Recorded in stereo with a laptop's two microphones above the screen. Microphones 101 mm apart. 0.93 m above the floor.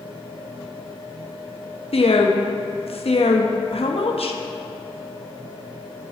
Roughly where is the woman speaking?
Left.